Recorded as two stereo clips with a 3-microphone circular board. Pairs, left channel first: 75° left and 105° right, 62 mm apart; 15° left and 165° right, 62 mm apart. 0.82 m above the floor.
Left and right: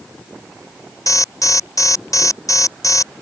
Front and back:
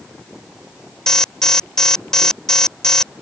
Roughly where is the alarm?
Left.